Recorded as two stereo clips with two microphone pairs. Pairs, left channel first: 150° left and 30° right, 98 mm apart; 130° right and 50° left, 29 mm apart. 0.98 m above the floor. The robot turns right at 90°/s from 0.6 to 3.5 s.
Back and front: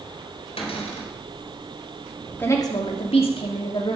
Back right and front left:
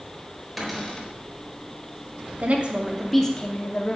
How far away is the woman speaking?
About 2.5 m.